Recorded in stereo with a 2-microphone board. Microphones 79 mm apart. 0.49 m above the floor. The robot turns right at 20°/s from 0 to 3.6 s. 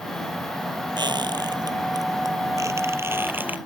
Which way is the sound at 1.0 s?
70° right (ahead or behind).